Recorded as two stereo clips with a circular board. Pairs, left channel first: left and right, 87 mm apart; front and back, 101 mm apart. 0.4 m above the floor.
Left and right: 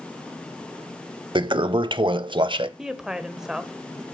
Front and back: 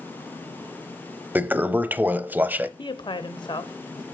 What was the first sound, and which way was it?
A toilet flushing, 110° right.